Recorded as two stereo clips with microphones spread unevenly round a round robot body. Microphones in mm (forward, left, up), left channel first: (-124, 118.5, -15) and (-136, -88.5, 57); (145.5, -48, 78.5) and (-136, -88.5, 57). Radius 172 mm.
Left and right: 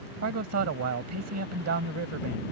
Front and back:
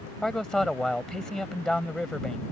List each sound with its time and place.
0.2 s a man speaking: 80° right